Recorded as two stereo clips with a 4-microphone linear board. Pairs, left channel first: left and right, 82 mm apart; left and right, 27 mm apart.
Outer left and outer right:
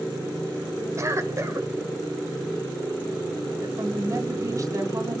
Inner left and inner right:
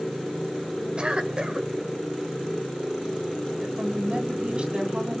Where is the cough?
40° right (ahead or behind), 3 m.